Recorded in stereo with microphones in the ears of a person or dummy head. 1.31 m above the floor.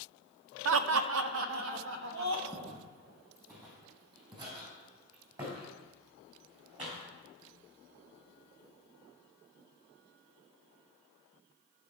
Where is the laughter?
75° right (ahead or behind), 0.6 m; by 2.4 s 70° right (ahead or behind), 1.6 m.